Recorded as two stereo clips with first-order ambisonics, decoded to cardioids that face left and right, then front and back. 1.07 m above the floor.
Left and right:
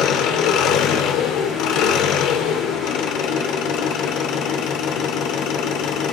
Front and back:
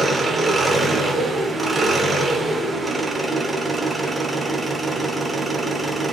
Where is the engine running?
100° left, 1.0 m.